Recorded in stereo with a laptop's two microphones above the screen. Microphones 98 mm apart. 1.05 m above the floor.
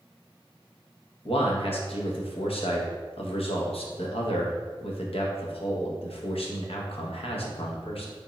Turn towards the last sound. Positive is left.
turn(degrees=75)  # may be behind; listen again after turning